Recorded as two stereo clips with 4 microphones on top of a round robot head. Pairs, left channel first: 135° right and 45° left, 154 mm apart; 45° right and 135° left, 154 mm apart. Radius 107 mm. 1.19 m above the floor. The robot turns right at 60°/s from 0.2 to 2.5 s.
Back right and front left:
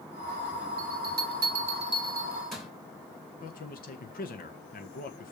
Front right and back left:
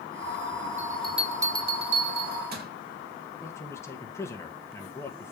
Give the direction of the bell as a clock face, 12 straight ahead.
11 o'clock.